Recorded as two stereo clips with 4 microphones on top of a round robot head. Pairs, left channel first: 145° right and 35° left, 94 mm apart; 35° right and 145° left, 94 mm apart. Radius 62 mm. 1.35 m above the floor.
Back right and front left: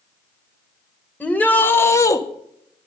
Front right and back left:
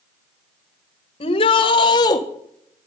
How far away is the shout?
About 1.6 m.